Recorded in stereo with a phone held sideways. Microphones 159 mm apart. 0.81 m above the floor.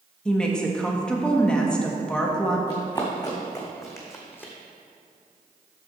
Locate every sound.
0.2 s a woman speaking: 5° left (ahead or behind), 1.1 m
2.7 s running footsteps: 30° left (ahead or behind), 2.5 m; by 4.5 s 10° left (ahead or behind), 1.6 m